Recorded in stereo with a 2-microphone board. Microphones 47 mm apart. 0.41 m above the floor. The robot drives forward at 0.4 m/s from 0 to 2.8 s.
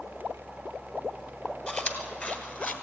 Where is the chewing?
30° left (ahead or behind), 1.7 m; by 2.7 s 40° left (ahead or behind), 1.4 m.